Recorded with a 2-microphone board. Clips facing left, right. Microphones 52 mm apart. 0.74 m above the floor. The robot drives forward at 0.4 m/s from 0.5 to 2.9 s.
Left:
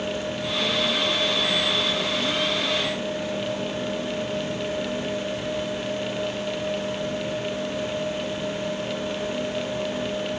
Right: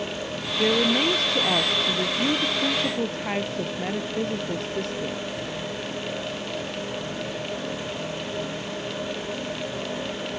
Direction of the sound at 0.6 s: 80° right.